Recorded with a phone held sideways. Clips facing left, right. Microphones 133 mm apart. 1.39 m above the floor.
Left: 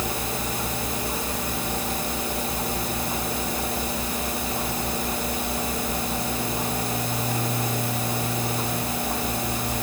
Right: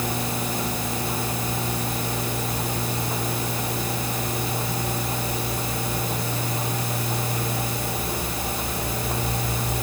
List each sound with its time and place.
Only background noise.